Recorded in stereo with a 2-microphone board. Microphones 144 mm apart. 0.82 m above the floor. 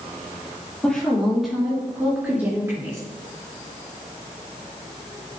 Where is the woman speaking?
5° left (ahead or behind), 2 m; by 3.0 s 20° right (ahead or behind), 3 m.